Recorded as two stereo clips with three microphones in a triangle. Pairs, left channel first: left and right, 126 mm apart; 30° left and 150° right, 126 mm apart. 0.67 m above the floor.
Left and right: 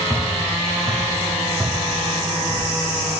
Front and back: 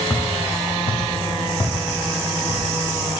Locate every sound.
0.1 s footsteps: 35° right, 2 m; by 2.6 s straight ahead, 2.5 m